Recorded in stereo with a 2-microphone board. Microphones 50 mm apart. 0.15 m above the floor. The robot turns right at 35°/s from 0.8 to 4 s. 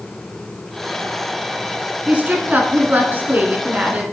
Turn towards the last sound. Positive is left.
turn(degrees=-55)